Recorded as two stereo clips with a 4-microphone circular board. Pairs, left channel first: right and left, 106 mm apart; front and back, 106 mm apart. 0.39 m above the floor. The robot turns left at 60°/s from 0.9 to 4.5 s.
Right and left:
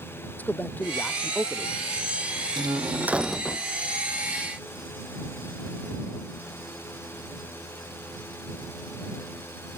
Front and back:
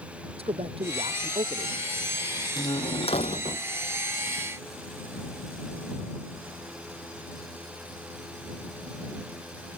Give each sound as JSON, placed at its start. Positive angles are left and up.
{"t": 0.4, "sound": "a man speaking", "azimuth_deg": -165}
{"t": 2.6, "sound": "a door slam", "azimuth_deg": 45}